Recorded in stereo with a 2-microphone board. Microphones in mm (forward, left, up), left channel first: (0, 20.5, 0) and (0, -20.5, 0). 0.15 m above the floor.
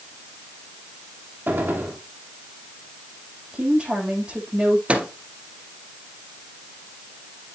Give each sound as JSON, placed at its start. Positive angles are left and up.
{"t": 1.5, "sound": "a gunshot", "side_deg": -55, "distance_m": 3.0}
{"t": 3.5, "sound": "a woman speaking", "side_deg": -25, "distance_m": 9.0}
{"t": 4.9, "sound": "a microwave", "side_deg": -30, "distance_m": 2.0}